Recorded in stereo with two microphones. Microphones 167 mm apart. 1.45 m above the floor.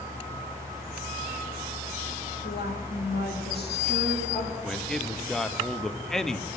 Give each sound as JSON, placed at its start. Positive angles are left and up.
{"t": 2.4, "sound": "a woman speaking", "side_deg": 65, "distance_m": 1.5}
{"t": 4.6, "sound": "a man speaking", "side_deg": 0, "distance_m": 0.5}